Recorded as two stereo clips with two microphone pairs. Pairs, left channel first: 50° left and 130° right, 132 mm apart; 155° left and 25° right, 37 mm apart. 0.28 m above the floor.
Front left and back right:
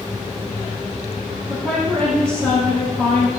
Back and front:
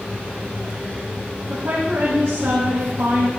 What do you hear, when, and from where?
1.5 s a woman speaking: 20° right, 7.5 m